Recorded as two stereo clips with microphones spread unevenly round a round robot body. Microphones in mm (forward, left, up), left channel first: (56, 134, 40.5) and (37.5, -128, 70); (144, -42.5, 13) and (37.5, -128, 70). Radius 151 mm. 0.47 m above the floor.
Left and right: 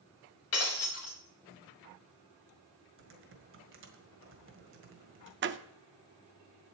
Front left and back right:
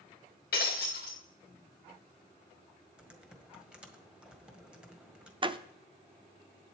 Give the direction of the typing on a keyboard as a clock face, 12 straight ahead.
2 o'clock.